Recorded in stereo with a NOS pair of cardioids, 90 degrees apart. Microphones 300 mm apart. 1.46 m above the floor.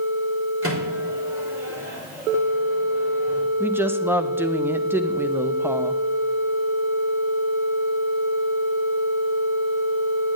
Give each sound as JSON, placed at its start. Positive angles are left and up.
{"t": 0.6, "sound": "a microwave", "azimuth_deg": -45, "distance_m": 3.5}
{"t": 3.6, "sound": "a woman speaking", "azimuth_deg": -5, "distance_m": 0.9}